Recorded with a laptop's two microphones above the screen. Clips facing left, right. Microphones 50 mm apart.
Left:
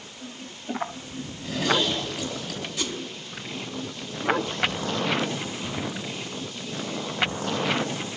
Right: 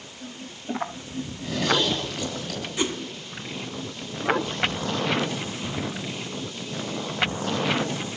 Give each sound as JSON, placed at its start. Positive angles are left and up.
{"t": 1.2, "sound": "a zipper", "side_deg": 0, "distance_m": 8.0}
{"t": 2.8, "sound": "a whoosh", "side_deg": -25, "distance_m": 1.3}